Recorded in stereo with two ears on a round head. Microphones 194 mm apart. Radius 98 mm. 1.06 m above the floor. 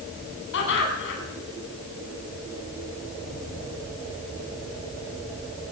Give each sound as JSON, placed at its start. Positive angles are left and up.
{"t": 0.5, "sound": "laughter", "side_deg": 60, "distance_m": 9.5}